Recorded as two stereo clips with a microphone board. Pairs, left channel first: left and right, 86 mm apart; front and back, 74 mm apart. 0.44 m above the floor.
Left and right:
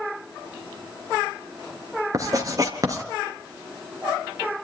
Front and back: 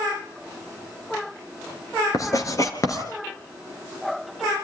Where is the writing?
40° right, 3.5 m.